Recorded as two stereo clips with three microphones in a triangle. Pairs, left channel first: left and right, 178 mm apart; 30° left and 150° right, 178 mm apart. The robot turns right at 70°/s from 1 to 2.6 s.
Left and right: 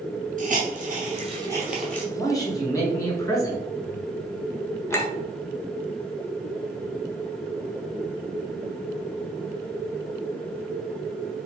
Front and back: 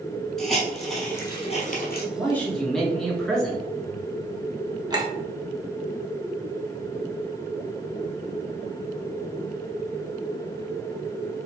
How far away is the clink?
About 0.9 m.